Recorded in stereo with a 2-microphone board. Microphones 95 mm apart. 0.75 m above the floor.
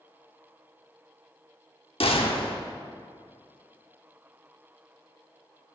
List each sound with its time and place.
2.0 s a gunshot: 75° left (ahead or behind), 1.0 m